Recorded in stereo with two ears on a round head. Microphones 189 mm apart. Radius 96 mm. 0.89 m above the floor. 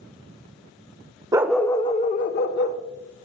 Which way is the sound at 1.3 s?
15° right (ahead or behind).